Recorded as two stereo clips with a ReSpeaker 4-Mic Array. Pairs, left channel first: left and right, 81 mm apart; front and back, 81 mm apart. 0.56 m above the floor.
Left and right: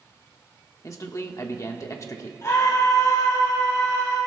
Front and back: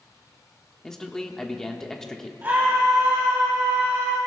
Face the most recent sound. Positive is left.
turn(degrees=120)